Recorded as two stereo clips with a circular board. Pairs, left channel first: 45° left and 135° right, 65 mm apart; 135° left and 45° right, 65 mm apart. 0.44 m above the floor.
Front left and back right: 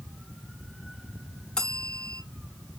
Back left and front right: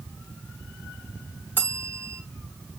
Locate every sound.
1.6 s a bell: 30° right, 1.1 m